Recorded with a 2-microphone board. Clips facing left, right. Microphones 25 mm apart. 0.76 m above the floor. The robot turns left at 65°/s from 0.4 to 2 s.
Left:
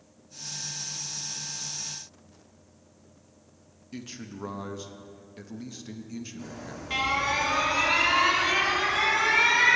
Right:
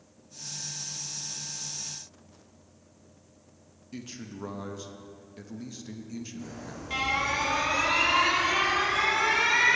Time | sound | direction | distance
3.9 | a man speaking | 10° left (ahead or behind) | 0.8 m
6.4 | an alarm | 15° left (ahead or behind) | 2.5 m